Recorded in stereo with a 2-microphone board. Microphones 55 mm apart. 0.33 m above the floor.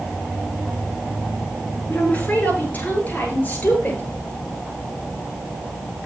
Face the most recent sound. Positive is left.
turn(degrees=30)  # may be behind; listen again after turning